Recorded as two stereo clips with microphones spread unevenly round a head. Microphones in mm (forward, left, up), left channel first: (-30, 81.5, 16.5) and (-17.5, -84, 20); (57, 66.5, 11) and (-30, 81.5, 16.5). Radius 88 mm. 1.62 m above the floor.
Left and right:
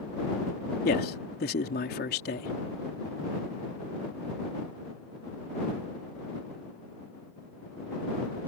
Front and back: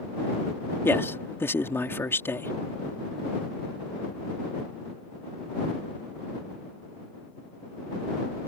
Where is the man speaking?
55° left.